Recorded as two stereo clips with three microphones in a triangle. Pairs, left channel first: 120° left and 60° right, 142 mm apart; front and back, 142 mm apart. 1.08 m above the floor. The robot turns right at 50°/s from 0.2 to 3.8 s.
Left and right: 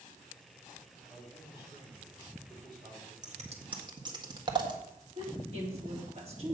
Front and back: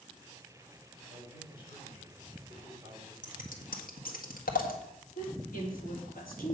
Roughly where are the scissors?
Ahead right.